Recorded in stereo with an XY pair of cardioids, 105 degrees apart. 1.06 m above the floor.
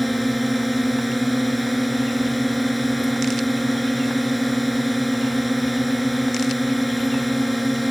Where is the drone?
Straight ahead.